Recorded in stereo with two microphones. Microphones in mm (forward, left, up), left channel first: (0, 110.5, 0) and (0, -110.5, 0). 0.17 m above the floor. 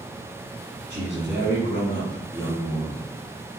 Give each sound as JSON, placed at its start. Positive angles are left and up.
{"t": 0.9, "sound": "a man speaking", "side_deg": 35, "distance_m": 1.2}